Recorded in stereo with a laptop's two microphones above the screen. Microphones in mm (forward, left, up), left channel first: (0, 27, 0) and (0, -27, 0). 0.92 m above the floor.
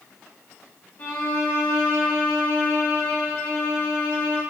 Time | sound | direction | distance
1.0 | a violin | 35° left (ahead or behind) | 1.1 m